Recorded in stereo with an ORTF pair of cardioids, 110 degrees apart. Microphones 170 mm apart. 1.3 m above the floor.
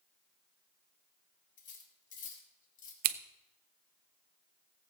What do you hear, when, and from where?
1.6 s cutlery clinking: 50° left, 2.5 m
3.0 s scissors: 70° right, 0.7 m